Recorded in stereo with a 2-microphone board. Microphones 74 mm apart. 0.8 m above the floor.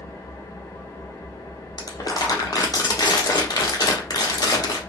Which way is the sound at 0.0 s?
45° left (ahead or behind).